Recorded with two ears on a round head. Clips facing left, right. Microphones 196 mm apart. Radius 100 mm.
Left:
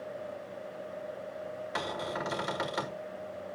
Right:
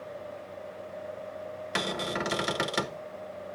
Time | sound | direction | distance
1.8 | a cupboard door | 30° right (ahead or behind) | 1.2 m